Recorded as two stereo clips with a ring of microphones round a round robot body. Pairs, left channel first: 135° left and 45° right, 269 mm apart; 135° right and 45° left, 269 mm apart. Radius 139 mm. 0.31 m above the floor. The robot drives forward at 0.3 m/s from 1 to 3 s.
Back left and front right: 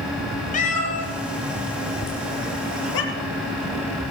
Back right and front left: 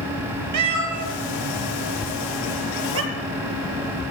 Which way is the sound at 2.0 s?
100° left.